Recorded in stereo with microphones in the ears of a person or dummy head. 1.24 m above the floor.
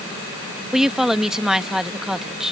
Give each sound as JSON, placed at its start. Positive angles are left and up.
{"t": 0.7, "sound": "a woman speaking", "side_deg": 0}